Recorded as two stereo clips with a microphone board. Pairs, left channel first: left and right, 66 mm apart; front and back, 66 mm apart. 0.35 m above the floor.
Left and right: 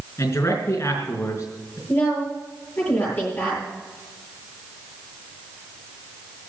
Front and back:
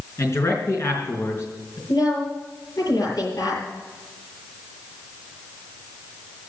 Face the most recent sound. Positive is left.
turn(degrees=30)